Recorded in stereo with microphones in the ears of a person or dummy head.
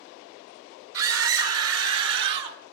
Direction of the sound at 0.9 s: 80° right.